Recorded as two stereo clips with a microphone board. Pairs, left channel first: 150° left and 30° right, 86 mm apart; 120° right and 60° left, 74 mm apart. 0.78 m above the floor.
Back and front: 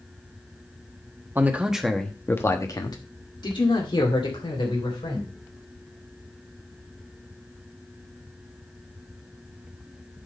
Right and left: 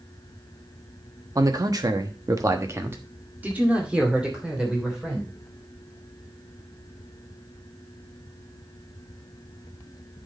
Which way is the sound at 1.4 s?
30° left.